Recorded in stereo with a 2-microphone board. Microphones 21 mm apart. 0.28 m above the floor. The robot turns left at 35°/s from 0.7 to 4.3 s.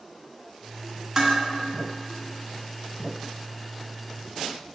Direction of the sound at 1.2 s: 25° right (ahead or behind).